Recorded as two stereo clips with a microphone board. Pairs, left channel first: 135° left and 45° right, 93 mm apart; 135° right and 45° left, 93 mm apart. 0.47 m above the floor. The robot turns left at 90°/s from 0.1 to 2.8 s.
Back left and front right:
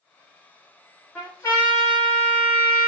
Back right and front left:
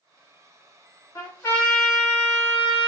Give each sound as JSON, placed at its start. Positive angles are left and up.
{"t": 1.1, "sound": "a trumpet", "azimuth_deg": -165, "distance_m": 1.7}